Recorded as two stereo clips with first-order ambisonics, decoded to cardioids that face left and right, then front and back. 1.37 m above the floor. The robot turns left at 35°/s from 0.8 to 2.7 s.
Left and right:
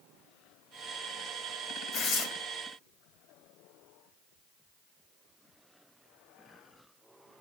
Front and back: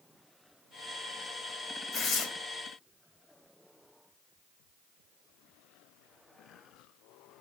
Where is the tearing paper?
50° left, 2.5 m; by 2.3 s 40° left, 2.5 m.